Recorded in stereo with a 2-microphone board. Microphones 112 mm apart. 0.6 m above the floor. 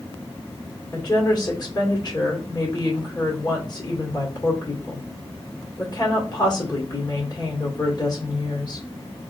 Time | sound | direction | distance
0.9 | a woman speaking | 40° left (ahead or behind) | 2.0 m